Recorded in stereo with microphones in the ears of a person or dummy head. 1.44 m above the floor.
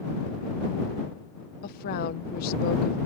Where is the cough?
I don't hear a cough.